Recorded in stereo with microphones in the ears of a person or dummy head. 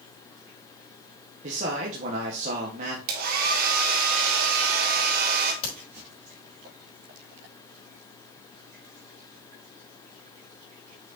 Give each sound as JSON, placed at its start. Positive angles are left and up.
{"t": 1.4, "sound": "a man speaking", "side_deg": -40, "distance_m": 1.4}
{"t": 3.1, "sound": "a hair dryer", "side_deg": -55, "distance_m": 1.4}
{"t": 5.6, "sound": "a crack", "side_deg": 40, "distance_m": 4.0}